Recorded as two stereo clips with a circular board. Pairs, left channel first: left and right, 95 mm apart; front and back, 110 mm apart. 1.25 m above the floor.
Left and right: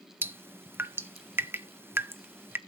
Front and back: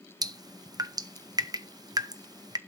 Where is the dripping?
145° right, 0.7 m.